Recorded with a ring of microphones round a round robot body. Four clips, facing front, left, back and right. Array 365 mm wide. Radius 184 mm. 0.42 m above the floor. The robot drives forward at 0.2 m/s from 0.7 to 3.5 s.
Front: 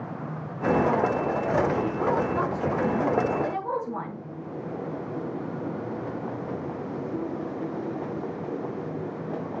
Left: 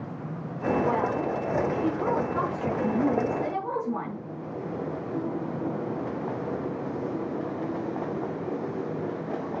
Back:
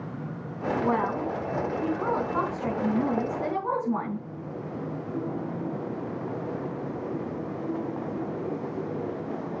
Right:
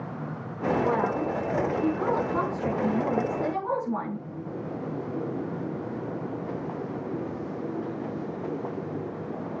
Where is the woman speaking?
160° right, 4 m; by 4.2 s 165° right, 4.5 m.